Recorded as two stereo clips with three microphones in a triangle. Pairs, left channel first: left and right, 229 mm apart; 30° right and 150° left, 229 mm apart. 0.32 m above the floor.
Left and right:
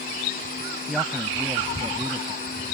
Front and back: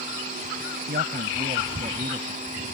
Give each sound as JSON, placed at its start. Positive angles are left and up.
{"t": 0.9, "sound": "a man speaking", "azimuth_deg": 180}